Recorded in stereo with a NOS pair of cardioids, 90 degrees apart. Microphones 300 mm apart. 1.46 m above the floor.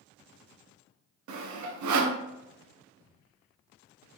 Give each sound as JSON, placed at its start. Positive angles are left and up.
{"t": 1.3, "sound": "sawing", "azimuth_deg": -65, "distance_m": 0.9}